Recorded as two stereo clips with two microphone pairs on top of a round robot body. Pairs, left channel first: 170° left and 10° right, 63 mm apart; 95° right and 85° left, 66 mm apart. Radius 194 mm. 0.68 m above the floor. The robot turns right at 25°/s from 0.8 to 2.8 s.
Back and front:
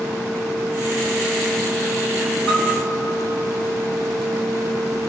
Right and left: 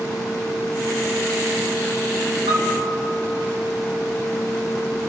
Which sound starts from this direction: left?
A piano, at 2.5 s.